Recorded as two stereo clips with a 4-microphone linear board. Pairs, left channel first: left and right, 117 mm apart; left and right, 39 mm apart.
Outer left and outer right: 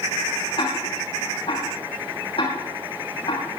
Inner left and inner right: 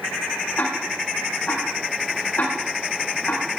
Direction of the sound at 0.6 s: 60° left (ahead or behind).